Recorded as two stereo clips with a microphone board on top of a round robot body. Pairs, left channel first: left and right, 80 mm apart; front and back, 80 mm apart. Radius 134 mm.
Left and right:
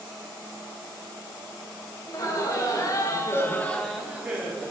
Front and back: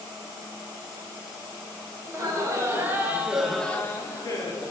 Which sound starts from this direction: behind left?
Laughter, at 2.0 s.